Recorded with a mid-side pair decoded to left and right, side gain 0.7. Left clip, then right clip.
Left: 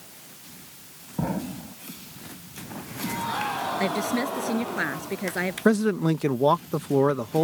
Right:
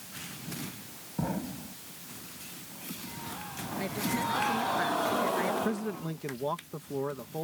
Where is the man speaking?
50° left.